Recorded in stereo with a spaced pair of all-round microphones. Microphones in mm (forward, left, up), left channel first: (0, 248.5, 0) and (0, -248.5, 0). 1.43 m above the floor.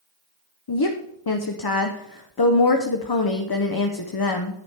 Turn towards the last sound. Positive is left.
turn(degrees=45)  # may be behind; listen again after turning